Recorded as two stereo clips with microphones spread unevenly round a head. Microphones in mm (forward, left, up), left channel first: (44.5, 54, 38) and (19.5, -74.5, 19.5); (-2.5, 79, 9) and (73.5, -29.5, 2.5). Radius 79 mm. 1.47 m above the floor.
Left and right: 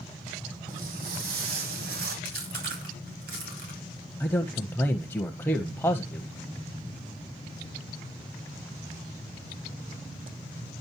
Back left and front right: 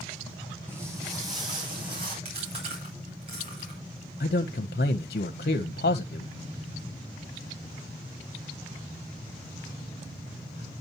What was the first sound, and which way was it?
Footsteps, 130° right.